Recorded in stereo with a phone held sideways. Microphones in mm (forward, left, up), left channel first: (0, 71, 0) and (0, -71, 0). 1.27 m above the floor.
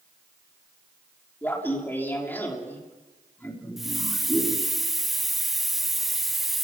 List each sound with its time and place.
1.4 s laughter: 15° left (ahead or behind), 3.5 m
3.8 s a hiss: centre (ahead or behind), 0.6 m